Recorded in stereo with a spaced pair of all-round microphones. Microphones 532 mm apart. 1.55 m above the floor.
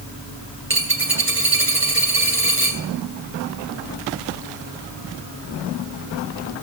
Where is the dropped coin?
20° right (ahead or behind), 2.5 m.